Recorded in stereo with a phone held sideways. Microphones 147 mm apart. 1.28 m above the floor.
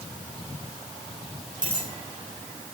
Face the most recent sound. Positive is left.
turn(degrees=-70)  # may be behind; listen again after turning